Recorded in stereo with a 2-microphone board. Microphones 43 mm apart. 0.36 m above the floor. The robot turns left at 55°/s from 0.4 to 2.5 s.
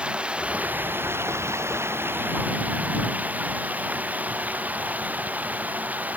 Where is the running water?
25° right; by 6.2 s 140° right.